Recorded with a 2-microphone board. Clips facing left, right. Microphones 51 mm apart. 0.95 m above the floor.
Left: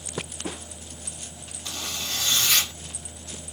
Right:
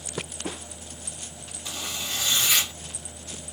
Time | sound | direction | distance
1.6 | a zipper | 15° right (ahead or behind) | 0.9 m